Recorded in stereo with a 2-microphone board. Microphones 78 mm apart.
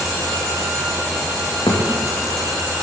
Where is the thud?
65° left (ahead or behind), 5 m.